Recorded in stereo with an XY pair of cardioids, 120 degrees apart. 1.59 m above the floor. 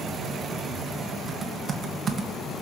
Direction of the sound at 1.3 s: 45° right.